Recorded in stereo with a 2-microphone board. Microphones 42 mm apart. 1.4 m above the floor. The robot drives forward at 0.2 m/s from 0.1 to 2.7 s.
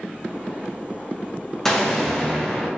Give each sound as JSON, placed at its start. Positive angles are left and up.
{"t": 1.6, "sound": "an explosion", "side_deg": 10, "distance_m": 0.6}